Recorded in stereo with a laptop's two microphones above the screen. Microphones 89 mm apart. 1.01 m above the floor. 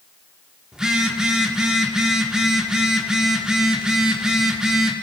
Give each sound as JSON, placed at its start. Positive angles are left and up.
{"t": 0.7, "sound": "a phone buzzing", "side_deg": -10, "distance_m": 1.3}